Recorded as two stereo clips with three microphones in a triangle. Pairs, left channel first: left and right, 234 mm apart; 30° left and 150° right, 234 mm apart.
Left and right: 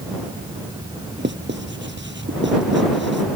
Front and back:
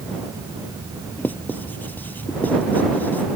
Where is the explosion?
I don't hear an explosion.